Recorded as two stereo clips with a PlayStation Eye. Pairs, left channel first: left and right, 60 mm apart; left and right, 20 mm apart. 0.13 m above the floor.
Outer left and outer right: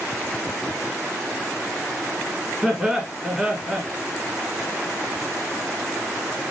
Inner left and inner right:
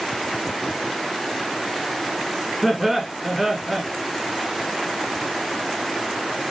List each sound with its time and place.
2.6 s laughter: 10° right (ahead or behind), 1.2 m